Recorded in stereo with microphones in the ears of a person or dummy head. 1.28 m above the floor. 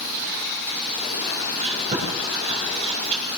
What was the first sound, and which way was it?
Chewing, 35° right (ahead or behind).